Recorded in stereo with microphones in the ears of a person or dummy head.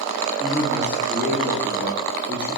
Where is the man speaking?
15° left (ahead or behind), 3.5 m.